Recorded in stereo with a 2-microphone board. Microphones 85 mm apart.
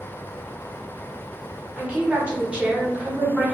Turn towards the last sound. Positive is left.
turn(degrees=-15)  # may be behind; listen again after turning